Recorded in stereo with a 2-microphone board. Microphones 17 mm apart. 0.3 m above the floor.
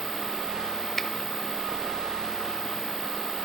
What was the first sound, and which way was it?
A finger snap, 15° left (ahead or behind).